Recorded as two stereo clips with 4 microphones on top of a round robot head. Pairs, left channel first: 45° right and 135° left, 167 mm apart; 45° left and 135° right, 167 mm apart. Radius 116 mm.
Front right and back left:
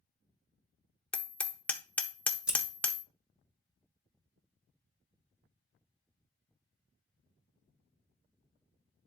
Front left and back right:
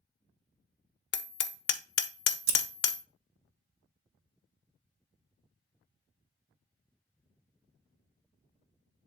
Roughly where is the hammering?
Ahead left.